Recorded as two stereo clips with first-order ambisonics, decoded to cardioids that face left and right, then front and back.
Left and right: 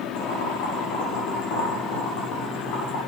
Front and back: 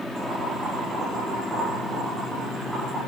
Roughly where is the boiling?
Left.